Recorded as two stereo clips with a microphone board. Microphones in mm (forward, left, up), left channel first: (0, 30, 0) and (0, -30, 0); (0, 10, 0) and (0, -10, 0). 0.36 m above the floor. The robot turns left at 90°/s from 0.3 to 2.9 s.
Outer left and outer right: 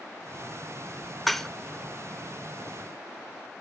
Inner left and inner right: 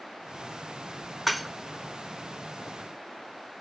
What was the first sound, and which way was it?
Dishes clattering, centre (ahead or behind).